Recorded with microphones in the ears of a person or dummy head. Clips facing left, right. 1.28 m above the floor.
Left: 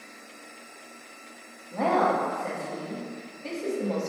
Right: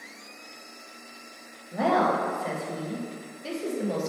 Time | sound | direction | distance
1.7 | a woman speaking | 5° right (ahead or behind) | 0.6 m